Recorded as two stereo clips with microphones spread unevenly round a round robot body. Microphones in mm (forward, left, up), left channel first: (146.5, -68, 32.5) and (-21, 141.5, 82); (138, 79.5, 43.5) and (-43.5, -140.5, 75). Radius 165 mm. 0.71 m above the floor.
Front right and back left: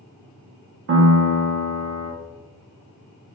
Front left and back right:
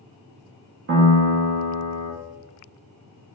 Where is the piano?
Straight behind, 0.5 m.